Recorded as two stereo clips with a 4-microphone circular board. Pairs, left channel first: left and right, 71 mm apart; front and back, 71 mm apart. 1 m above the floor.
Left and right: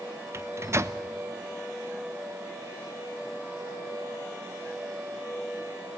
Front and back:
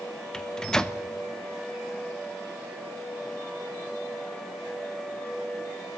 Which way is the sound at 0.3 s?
75° right.